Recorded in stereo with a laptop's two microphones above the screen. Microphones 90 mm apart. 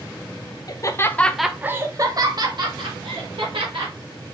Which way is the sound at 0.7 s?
45° left (ahead or behind).